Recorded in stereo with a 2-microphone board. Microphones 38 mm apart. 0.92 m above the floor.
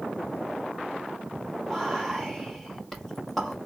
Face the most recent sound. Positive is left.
turn(degrees=0)  # may be behind; listen again after turning